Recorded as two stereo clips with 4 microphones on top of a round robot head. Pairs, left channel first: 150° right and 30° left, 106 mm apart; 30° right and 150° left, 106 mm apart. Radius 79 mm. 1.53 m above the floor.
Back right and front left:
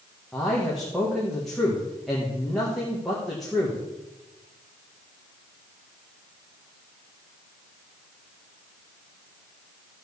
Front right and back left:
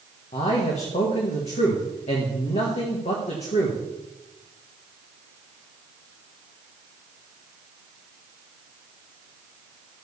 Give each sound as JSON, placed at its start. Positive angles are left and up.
{"t": 0.3, "sound": "a man speaking", "azimuth_deg": -60, "distance_m": 1.8}